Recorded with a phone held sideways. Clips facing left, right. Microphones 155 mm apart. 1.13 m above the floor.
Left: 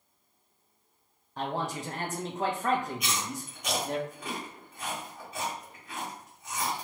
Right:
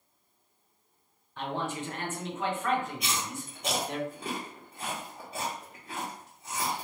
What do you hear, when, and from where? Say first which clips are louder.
1.4 s a man speaking: left 1 dB; 40° left (ahead or behind), 0.9 m
3.0 s chewing: even; 30° right (ahead or behind), 1.5 m